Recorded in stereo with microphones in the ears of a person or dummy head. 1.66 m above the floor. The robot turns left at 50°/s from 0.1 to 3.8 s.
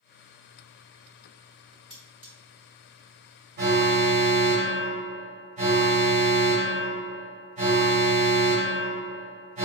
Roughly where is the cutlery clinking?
Centre.